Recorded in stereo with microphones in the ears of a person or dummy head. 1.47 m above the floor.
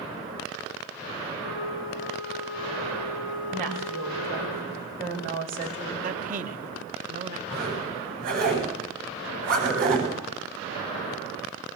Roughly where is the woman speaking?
Right.